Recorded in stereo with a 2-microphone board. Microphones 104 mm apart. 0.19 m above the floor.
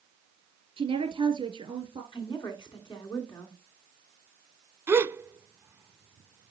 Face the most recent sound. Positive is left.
turn(degrees=-20)  # may be behind; listen again after turning